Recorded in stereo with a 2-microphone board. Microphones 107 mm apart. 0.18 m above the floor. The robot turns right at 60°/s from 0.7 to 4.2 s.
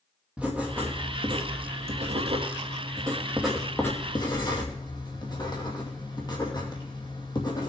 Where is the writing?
170° right, 2.5 m; by 7.7 s 40° left, 2.5 m.